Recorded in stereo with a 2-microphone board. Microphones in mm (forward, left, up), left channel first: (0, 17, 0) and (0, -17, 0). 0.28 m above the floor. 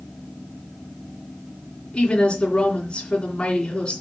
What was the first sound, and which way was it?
A woman speaking, 30° left (ahead or behind).